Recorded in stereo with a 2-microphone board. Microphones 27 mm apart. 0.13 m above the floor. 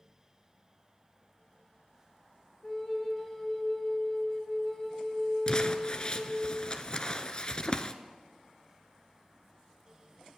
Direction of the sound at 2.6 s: 15° left (ahead or behind).